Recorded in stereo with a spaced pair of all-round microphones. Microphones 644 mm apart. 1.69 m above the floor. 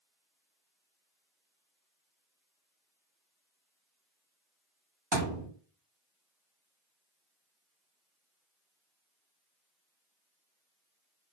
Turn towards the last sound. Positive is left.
turn(degrees=-40)  # may be behind; listen again after turning